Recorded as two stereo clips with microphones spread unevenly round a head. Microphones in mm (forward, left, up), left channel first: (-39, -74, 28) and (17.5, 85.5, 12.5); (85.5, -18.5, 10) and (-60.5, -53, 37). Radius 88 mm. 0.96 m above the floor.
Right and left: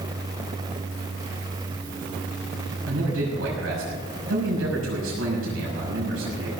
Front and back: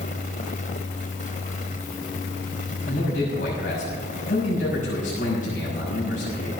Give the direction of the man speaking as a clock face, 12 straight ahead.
10 o'clock.